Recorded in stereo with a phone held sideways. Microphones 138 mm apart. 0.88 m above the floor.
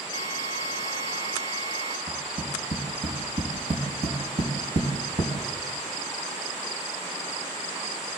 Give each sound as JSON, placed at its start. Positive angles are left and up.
{"t": 0.1, "sound": "a drill", "side_deg": -55, "distance_m": 8.0}
{"t": 2.1, "sound": "tapping", "side_deg": -75, "distance_m": 5.0}